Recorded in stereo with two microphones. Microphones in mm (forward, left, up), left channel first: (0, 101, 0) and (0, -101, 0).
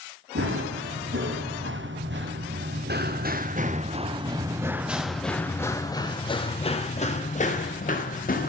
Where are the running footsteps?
80° right, 2.5 m; by 8.5 s 45° left (ahead or behind), 2.5 m.